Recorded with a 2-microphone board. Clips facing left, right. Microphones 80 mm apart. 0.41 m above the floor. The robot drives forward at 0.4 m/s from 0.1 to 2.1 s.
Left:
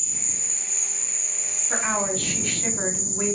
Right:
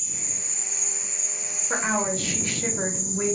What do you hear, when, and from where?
0.0 s an insect: 75° right (ahead or behind), 1.1 m; by 3.4 s 65° right (ahead or behind), 1.2 m
1.7 s a woman speaking: 25° right (ahead or behind), 1.0 m; by 3.4 s 20° right (ahead or behind), 1.1 m